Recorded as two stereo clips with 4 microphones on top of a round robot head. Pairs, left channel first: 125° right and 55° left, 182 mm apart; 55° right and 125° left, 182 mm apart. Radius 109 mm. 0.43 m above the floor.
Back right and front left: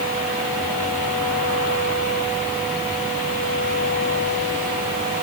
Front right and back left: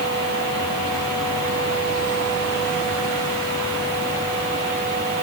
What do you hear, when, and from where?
Only background noise.